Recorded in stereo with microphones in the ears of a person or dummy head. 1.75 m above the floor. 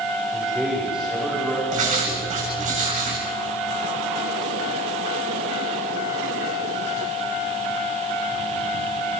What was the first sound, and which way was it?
A man speaking, centre (ahead or behind).